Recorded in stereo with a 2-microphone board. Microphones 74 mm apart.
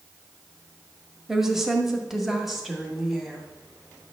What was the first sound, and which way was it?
A woman speaking, 5° right (ahead or behind).